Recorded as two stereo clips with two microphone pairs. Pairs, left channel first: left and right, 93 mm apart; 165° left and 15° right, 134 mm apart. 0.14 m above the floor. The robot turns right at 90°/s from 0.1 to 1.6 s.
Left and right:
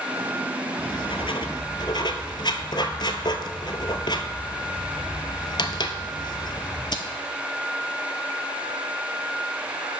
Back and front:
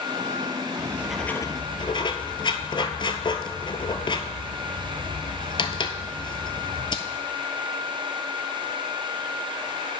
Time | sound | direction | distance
0.8 | writing | 45° left | 0.8 m